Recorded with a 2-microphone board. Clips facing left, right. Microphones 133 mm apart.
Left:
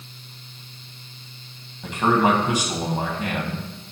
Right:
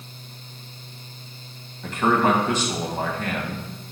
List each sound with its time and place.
1.8 s a man speaking: 15° left (ahead or behind), 1.3 m